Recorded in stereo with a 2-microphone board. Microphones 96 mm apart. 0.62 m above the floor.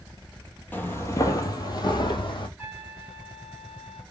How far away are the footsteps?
About 0.8 m.